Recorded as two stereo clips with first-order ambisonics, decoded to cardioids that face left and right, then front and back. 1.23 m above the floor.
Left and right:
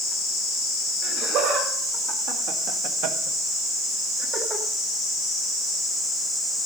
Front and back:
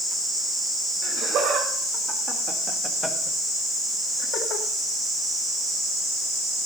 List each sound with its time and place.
1.0 s laughter: 140° right, 3.5 m; by 4.7 s 15° right, 2.5 m